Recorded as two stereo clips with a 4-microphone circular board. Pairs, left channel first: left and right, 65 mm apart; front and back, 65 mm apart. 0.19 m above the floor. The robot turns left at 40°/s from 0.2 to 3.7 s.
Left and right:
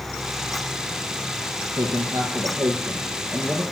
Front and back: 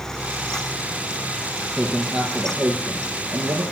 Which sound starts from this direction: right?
A man speaking, at 1.8 s.